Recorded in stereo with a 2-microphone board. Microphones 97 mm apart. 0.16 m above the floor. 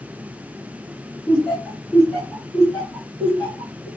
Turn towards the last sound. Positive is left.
turn(degrees=-5)  # may be behind; listen again after turning